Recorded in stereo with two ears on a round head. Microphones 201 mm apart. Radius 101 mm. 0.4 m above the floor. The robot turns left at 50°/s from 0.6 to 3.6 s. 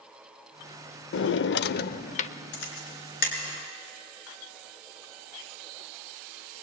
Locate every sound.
1.1 s a drawer: 95° left, 0.5 m; by 2.3 s 35° left, 0.5 m
2.5 s a camera shutter: 75° left (ahead or behind), 4.5 m; by 3.4 s 35° left (ahead or behind), 4.5 m